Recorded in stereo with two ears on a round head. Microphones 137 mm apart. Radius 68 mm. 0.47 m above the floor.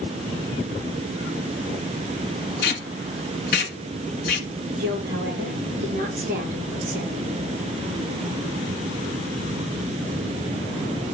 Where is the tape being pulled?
65° left (ahead or behind), 1.6 m.